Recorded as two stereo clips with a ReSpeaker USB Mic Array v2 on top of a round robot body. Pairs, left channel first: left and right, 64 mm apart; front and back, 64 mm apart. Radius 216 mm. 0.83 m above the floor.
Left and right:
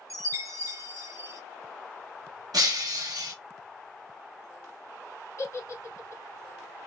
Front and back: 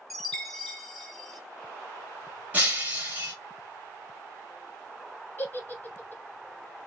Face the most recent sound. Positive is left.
turn(degrees=55)